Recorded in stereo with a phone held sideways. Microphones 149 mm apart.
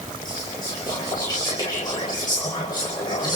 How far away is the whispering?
About 5 m.